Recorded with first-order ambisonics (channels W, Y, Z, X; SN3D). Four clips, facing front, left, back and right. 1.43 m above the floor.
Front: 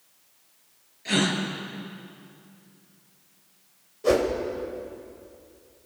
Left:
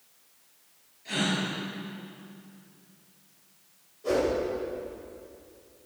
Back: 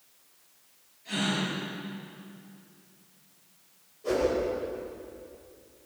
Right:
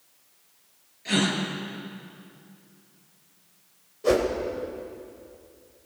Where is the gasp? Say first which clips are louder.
Right 4 dB, front 6 dB; 35° right, 4 m.